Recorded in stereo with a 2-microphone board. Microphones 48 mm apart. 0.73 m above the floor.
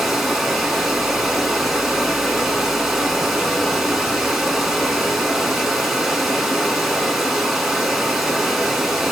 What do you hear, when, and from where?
0.0 s running water: 5° right (ahead or behind), 1.9 m